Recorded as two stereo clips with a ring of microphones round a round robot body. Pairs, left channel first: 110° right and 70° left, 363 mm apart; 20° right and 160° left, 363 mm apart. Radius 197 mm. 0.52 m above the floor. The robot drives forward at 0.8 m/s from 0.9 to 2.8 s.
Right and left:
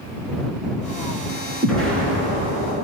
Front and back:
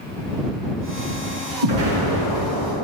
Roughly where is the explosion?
Behind.